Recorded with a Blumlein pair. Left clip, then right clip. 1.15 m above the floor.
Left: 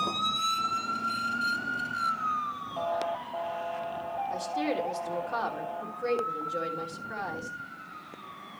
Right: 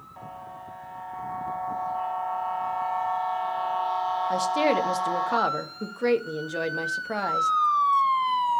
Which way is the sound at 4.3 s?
55° right.